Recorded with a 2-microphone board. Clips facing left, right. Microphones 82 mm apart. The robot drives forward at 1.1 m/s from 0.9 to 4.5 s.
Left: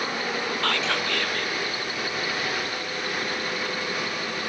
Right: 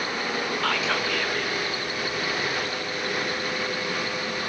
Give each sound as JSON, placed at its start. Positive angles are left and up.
{"t": 0.6, "sound": "whispering", "side_deg": -5}